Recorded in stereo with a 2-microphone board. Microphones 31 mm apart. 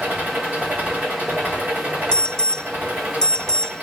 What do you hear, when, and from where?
0.0 s an engine running: 55° right (ahead or behind), 8.5 m
2.1 s an alarm: 20° left (ahead or behind), 0.7 m